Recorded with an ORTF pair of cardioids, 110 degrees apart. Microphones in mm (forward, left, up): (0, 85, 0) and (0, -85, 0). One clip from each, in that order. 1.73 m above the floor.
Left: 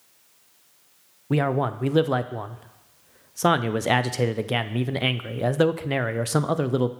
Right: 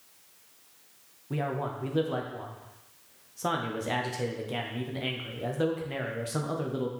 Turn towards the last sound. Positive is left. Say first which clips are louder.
# left 9 dB
turn(degrees=50)